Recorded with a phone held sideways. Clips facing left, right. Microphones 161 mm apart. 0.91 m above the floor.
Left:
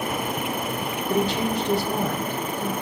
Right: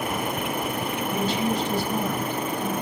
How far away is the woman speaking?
About 2.5 m.